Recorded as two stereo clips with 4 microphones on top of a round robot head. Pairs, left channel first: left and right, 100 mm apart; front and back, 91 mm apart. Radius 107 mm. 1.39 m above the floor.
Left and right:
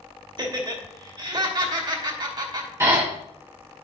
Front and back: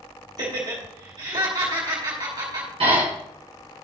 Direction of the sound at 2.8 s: 155° right.